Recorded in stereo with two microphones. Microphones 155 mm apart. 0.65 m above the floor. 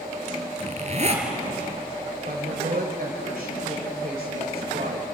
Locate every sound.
0.6 s a zipper: 45° right (ahead or behind), 3.5 m
2.2 s a woman speaking: 65° right (ahead or behind), 3 m